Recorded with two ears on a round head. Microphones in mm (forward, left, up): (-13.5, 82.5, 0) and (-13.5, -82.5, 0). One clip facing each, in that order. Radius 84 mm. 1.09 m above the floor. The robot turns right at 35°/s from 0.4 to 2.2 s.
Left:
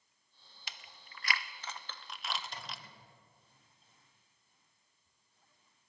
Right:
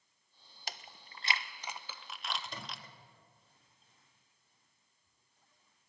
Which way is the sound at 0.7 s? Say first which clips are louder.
Right 6 dB; 35° right (ahead or behind).